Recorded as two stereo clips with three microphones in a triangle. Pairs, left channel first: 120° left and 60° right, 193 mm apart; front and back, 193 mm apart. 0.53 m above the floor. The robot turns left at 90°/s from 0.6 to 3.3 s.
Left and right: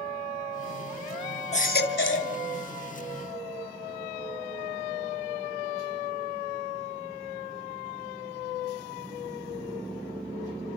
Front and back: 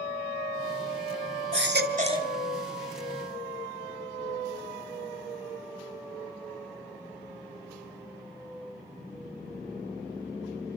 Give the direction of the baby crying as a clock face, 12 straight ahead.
6 o'clock.